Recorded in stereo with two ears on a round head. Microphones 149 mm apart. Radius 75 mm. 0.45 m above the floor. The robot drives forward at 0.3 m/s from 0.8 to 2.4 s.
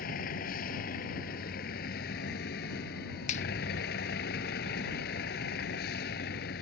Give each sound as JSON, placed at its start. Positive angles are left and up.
{"t": 0.0, "sound": "a vehicle", "side_deg": 55}
{"t": 3.3, "sound": "a finger snap", "side_deg": 45}